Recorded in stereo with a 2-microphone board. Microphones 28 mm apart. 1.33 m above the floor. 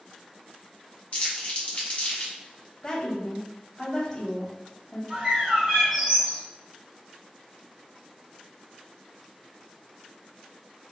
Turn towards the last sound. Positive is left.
turn(degrees=-30)  # may be behind; listen again after turning